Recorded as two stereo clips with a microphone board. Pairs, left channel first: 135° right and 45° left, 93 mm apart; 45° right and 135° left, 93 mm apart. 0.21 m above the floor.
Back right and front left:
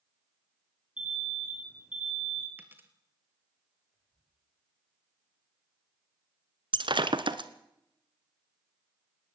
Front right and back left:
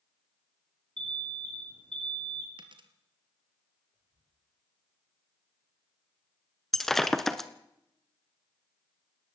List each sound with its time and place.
1.0 s an alarm: 125° left, 6.5 m
2.6 s a dropped coin: 115° left, 2 m
3.9 s whispering: 160° left, 8.5 m
6.7 s breaking glass: 40° left, 1.2 m